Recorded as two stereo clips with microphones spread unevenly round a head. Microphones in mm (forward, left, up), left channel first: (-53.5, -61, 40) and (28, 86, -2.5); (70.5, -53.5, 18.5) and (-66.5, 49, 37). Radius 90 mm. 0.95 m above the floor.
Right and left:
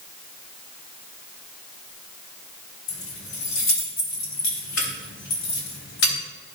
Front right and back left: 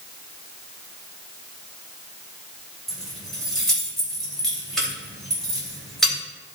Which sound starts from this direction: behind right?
Keys jangling, at 2.9 s.